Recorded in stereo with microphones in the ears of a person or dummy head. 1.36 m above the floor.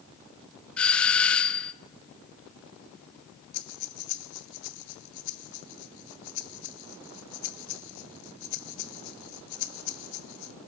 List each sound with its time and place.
0.8 s a doorbell: 5° left (ahead or behind), 0.6 m
3.5 s breathing: 50° left (ahead or behind), 1.0 m